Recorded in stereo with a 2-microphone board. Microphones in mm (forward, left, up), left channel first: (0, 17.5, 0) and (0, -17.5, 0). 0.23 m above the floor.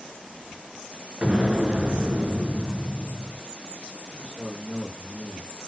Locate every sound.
1.2 s an explosion: 30° right (ahead or behind), 2.5 m
4.1 s a man speaking: 25° left (ahead or behind), 5.5 m